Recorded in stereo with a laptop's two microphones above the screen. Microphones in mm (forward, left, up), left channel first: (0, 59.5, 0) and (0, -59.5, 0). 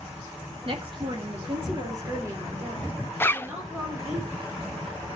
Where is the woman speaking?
50° right (ahead or behind), 2.5 m; by 4.2 s 10° right (ahead or behind), 4 m.